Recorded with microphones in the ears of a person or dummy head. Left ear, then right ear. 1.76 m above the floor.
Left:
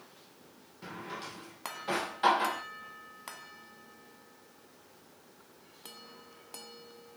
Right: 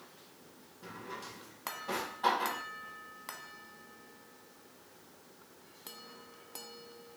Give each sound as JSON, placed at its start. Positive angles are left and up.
{"t": 0.8, "sound": "a drawer", "side_deg": 45, "distance_m": 1.1}